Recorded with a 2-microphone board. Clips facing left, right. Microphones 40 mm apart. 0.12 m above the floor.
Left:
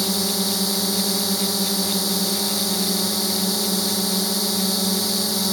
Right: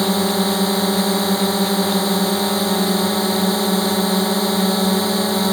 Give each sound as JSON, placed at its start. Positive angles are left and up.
{"t": 0.0, "sound": "a drone", "side_deg": -40}